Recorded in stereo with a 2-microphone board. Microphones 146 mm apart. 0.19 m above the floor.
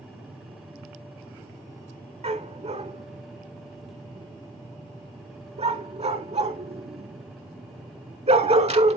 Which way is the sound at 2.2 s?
50° right (ahead or behind).